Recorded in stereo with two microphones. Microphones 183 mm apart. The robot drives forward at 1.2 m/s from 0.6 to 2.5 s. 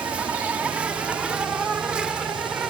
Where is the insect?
5° right (ahead or behind).